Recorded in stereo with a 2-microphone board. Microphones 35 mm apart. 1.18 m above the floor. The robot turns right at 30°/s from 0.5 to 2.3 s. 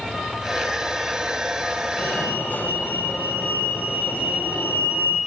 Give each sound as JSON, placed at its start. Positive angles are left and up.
{"t": 2.0, "sound": "a fire alarm", "side_deg": 70, "distance_m": 7.0}